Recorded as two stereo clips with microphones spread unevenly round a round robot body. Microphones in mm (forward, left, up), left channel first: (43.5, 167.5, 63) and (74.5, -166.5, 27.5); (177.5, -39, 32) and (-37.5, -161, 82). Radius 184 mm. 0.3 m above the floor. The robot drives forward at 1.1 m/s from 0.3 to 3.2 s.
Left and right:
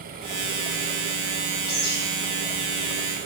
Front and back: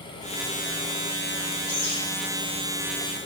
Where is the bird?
60° left, 5 m.